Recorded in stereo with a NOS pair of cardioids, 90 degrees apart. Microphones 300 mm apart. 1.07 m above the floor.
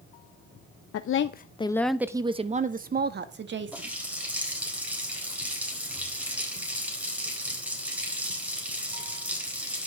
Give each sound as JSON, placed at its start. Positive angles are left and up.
{"t": 0.9, "sound": "a woman speaking", "azimuth_deg": 60, "distance_m": 0.8}
{"t": 3.7, "sound": "a running tap", "azimuth_deg": -5, "distance_m": 3.5}